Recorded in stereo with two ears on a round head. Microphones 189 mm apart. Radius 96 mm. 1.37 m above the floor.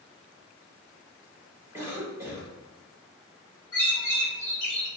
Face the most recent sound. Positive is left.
turn(degrees=10)  # may be behind; listen again after turning